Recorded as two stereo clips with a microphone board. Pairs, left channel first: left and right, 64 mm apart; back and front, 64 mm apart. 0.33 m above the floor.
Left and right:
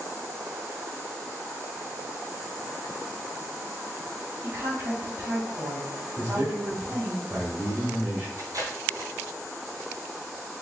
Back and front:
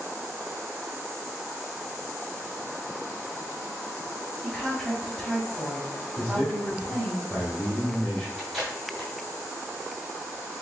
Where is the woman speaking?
95° right, 1.5 m.